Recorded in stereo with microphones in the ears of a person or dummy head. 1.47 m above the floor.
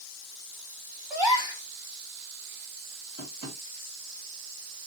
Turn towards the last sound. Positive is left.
turn(degrees=-80)